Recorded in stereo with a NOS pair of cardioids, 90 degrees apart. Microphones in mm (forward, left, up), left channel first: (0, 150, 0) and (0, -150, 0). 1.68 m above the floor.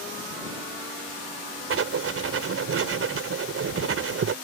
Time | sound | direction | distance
1.7 | writing | 50° right | ?